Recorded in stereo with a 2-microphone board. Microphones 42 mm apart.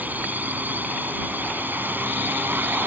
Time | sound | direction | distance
0.0 | a drone | 45° right (ahead or behind) | ?